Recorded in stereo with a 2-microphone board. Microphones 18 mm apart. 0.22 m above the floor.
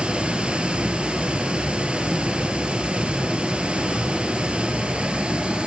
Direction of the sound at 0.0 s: 80° right.